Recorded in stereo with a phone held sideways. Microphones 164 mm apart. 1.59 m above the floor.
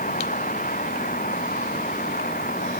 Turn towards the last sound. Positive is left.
turn(degrees=65)  # may be behind; listen again after turning